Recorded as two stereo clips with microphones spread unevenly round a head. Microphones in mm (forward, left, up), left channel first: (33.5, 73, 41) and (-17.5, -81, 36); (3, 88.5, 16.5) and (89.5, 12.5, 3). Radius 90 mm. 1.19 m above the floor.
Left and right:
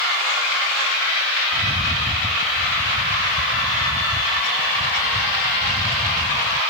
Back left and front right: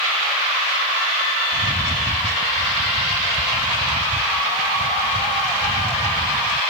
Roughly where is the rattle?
Ahead.